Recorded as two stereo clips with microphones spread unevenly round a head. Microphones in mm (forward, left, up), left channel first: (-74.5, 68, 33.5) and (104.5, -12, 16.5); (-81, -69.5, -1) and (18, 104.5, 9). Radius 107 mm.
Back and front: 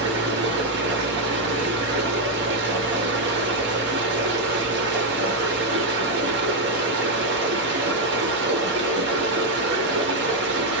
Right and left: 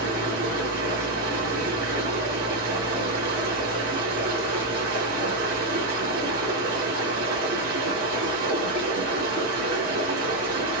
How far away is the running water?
About 1.0 m.